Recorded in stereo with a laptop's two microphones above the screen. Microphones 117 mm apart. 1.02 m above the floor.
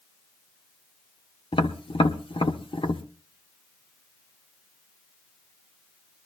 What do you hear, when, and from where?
1.5 s tapping: 50° left (ahead or behind), 1.1 m